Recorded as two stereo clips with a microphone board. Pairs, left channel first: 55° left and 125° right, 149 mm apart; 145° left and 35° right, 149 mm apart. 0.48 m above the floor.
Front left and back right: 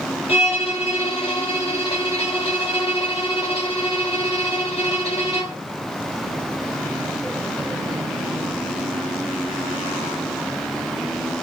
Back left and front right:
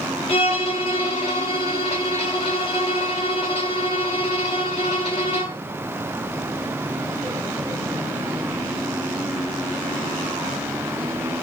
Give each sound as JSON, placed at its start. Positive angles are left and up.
{"t": 0.3, "sound": "a violin", "azimuth_deg": 100, "distance_m": 1.2}